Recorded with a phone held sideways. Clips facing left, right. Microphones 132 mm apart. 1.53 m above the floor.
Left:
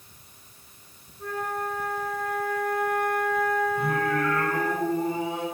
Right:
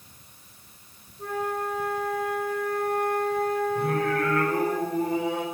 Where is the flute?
25° right (ahead or behind), 5.5 m.